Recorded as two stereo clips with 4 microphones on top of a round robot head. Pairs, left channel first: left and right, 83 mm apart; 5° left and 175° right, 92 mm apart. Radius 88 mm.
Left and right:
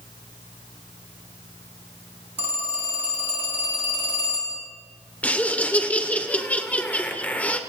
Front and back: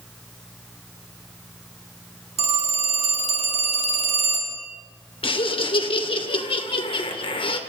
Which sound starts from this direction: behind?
A phone ringing, at 2.4 s.